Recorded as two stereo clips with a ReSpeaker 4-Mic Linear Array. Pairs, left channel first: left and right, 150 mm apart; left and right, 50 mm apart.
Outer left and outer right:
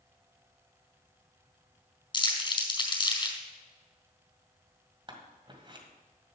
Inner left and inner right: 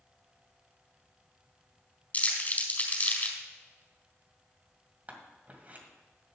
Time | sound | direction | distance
2.1 | crumpling | 30° left (ahead or behind) | 4 m
5.1 | scissors | 35° right (ahead or behind) | 2.0 m